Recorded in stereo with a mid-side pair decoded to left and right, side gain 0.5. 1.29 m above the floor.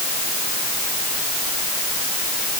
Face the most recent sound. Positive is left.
No sound to turn to.